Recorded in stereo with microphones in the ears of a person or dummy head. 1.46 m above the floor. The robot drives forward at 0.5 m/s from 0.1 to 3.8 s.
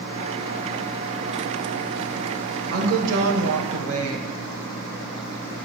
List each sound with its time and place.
2.7 s a woman speaking: 60° right (ahead or behind), 1.0 m; by 4.3 s 85° right, 0.9 m